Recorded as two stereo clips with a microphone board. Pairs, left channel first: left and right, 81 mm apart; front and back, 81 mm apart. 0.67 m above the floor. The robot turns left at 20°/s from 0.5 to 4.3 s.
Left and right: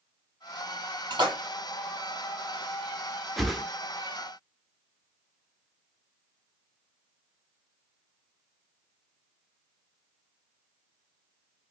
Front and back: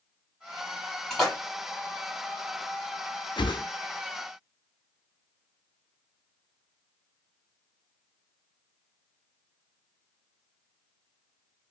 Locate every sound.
1.1 s a splash: 80° right, 1.8 m; by 1.4 s 90° right, 1.8 m
3.4 s a whoosh: straight ahead, 0.5 m; by 3.6 s 5° right, 0.5 m